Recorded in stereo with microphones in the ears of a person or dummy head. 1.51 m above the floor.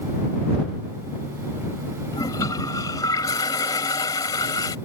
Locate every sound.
2.1 s a toilet flushing: 15° left (ahead or behind)